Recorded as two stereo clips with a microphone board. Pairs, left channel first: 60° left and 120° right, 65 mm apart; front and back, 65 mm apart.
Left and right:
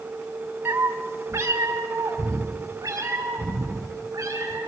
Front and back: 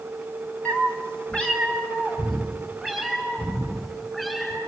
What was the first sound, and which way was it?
A cat meowing, 65° right.